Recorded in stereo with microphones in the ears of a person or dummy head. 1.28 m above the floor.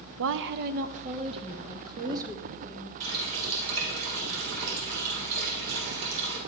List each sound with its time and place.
0.2 s a woman speaking: 75° right (ahead or behind), 0.7 m; by 2.9 s 15° right (ahead or behind), 2.5 m
3.0 s a running tap: 75° right (ahead or behind), 3.5 m